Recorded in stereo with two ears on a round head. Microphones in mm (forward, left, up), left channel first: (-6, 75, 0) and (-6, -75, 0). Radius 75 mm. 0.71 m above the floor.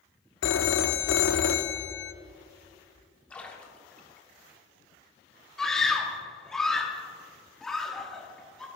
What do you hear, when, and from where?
0.4 s a phone ringing: 85° left, 0.5 m
3.3 s a splash: 10° left (ahead or behind), 1.3 m
5.6 s a scream: 5° left (ahead or behind), 1.1 m